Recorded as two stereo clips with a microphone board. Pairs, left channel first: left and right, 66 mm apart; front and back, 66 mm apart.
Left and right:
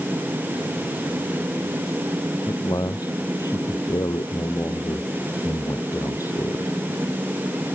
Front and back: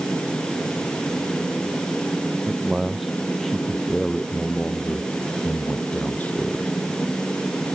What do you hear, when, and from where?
2.5 s a man speaking: 100° left; by 6.7 s 60° left